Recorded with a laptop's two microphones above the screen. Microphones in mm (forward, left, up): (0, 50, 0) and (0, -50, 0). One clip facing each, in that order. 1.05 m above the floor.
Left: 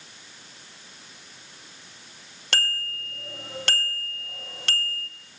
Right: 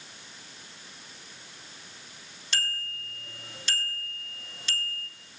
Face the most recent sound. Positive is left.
turn(degrees=80)